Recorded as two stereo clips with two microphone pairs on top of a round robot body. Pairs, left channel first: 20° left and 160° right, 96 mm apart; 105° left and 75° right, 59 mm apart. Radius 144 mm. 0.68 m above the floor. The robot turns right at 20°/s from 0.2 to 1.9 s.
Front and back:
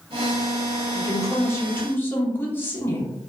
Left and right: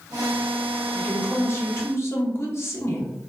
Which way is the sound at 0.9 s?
60° left.